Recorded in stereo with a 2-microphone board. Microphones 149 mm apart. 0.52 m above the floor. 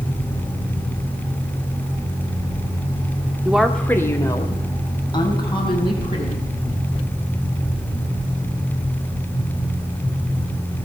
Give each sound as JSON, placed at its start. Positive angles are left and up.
{"t": 3.5, "sound": "a woman speaking", "side_deg": -10, "distance_m": 0.8}